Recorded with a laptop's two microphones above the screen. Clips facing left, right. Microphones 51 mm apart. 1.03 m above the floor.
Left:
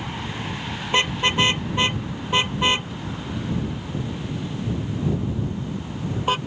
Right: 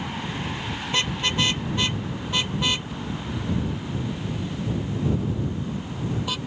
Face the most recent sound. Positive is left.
turn(degrees=40)  # may be behind; listen again after turning